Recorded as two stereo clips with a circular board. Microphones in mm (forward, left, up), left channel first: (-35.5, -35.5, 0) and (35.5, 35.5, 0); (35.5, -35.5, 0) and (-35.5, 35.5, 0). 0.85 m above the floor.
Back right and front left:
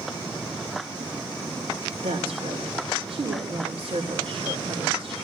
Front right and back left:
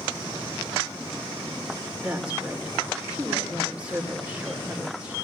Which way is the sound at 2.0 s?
55° left.